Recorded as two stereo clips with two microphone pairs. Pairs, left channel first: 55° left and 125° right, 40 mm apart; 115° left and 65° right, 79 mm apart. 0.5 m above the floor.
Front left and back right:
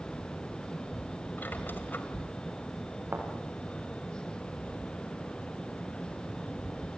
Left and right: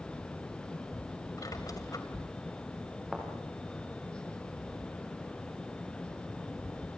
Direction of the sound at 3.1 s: 150° right.